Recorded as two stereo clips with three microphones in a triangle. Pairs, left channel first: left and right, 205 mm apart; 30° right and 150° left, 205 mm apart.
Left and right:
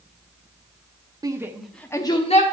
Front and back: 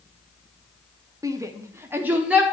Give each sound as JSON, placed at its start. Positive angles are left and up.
{"t": 1.2, "sound": "a shout", "azimuth_deg": -145, "distance_m": 0.8}